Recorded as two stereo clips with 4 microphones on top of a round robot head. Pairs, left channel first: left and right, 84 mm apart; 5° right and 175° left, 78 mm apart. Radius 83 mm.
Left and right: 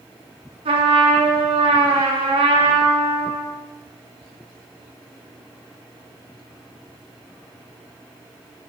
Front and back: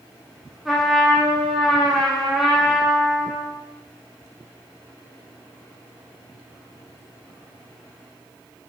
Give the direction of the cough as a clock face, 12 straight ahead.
I don't hear a cough.